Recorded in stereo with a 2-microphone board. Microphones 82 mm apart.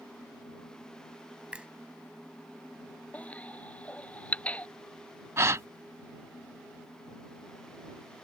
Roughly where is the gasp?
Right.